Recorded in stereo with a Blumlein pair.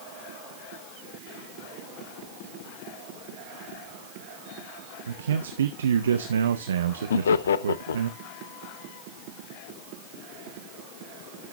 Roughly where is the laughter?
Ahead left.